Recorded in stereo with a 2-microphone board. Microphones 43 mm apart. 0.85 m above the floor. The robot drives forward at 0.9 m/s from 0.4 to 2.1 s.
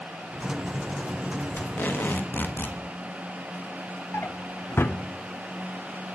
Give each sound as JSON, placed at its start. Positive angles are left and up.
{"t": 1.6, "sound": "tape being pulled", "side_deg": 45, "distance_m": 1.6}
{"t": 4.1, "sound": "a drawer", "side_deg": 60, "distance_m": 0.8}